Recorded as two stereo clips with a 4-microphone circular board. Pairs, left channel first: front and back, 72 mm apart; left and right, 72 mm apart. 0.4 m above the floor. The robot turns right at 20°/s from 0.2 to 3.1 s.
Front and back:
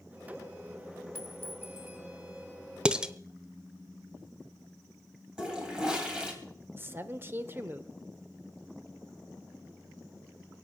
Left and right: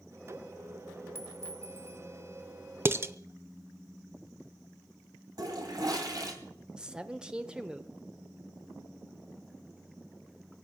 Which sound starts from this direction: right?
A toilet flushing, at 5.4 s.